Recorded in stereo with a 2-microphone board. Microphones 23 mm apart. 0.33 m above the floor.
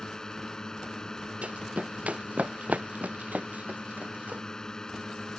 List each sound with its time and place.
0.0 s a drone: 30° left (ahead or behind)
1.4 s running footsteps: 55° right (ahead or behind); by 4.4 s 85° right